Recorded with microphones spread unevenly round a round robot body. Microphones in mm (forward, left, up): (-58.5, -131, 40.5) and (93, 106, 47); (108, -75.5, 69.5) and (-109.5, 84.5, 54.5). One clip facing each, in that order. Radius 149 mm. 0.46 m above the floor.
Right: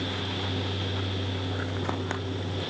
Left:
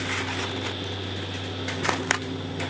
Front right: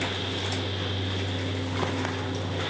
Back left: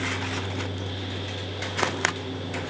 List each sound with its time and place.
Only background noise.